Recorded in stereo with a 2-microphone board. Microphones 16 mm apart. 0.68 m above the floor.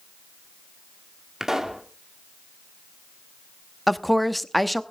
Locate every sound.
1.4 s a pop: 25° right (ahead or behind), 1.9 m
3.9 s a woman speaking: 5° left (ahead or behind), 0.8 m